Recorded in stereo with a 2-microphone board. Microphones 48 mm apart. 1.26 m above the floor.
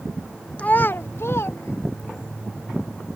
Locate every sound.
0.6 s a child speaking: 30° left (ahead or behind); by 2.3 s 70° left (ahead or behind)